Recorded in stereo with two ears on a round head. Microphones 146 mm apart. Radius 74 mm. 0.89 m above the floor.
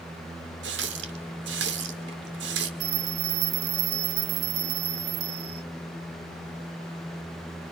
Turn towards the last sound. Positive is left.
turn(degrees=-60)  # may be behind; listen again after turning